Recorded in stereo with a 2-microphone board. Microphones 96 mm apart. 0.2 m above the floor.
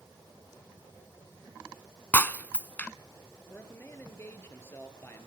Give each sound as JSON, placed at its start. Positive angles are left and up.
{"t": 2.1, "sound": "breaking glass", "side_deg": 20, "distance_m": 0.5}
{"t": 3.5, "sound": "a man speaking", "side_deg": 25, "distance_m": 3.5}